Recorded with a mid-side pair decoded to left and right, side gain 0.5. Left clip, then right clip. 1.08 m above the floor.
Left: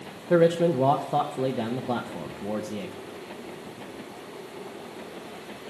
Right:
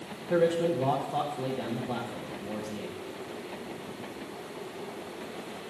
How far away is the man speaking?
About 1.1 m.